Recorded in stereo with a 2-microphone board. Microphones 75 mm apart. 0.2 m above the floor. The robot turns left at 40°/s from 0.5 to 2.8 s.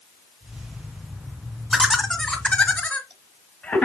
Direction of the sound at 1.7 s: Centre (ahead or behind).